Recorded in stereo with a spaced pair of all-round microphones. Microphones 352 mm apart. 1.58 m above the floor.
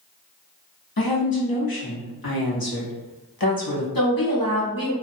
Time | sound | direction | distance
1.0 | a woman speaking | 80° left | 0.8 m
4.0 | a woman speaking | 75° left (ahead or behind) | 1.1 m